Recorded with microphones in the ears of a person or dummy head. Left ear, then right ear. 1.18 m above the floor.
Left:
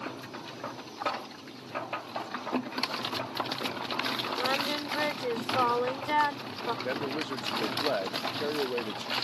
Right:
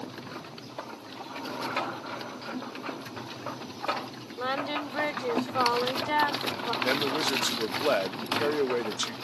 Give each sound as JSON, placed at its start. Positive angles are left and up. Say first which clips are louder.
{"t": 4.4, "sound": "singing", "louder": "right 3 dB", "side_deg": 10}
{"t": 6.8, "sound": "a man speaking", "louder": "right 6 dB", "side_deg": -30}